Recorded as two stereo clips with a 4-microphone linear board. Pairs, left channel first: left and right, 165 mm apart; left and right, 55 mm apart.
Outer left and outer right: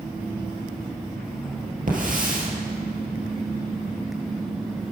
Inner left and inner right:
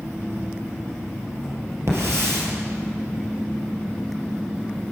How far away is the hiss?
About 2.5 m.